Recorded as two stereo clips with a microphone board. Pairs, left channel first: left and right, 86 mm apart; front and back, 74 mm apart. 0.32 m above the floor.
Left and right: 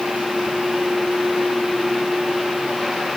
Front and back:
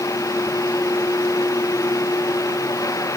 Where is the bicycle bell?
No bicycle bell in this recording.